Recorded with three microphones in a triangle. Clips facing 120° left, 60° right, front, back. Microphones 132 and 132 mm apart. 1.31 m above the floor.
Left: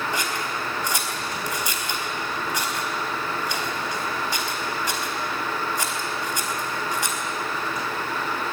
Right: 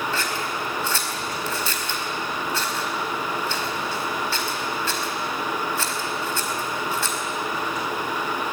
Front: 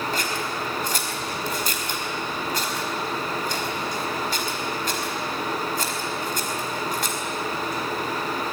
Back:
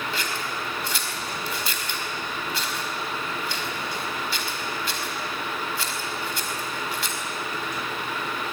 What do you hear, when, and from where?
0.1 s scissors: 45° left, 4.5 m